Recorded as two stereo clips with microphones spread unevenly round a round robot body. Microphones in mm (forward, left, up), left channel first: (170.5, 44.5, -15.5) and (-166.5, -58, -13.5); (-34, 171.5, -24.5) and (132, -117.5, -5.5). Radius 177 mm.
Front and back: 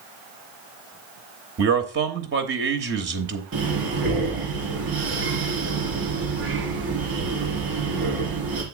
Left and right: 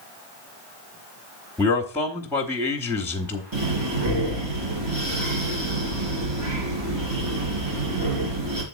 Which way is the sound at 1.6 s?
170° right.